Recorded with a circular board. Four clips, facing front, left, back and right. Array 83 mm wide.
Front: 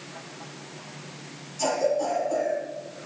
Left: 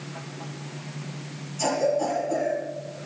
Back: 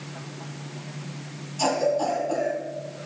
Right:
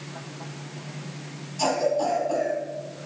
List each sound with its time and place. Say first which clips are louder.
1.6 s a cough: even, back 1 dB; 125° right, 2 m